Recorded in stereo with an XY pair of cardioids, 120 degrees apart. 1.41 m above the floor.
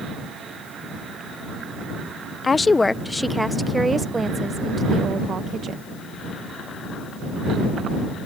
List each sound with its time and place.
2.4 s a woman speaking: 30° left; by 5.8 s 45° right